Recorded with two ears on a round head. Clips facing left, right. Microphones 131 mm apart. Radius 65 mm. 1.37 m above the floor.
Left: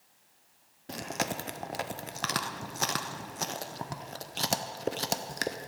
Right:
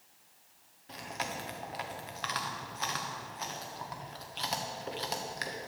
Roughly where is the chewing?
Left.